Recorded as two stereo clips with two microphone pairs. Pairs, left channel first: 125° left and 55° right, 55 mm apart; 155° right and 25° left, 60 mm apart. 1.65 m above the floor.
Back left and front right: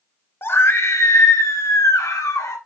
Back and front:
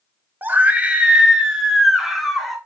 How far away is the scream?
About 1.1 m.